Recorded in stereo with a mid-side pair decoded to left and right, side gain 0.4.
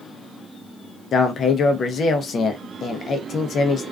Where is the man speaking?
60° left, 0.6 m.